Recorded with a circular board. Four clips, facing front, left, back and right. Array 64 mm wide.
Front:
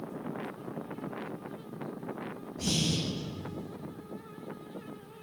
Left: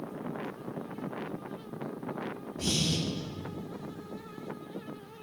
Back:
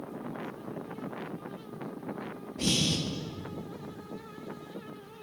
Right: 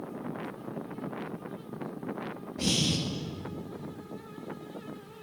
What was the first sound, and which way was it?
Breathing, 125° right.